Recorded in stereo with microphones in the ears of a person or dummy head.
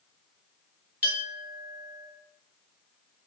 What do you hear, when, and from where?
1.0 s a clink: 10° right (ahead or behind), 2 m